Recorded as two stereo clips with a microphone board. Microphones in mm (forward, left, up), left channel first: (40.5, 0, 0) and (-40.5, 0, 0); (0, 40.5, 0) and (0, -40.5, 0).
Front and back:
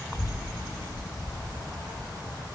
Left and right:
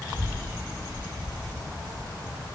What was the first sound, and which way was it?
A child speaking, 35° right.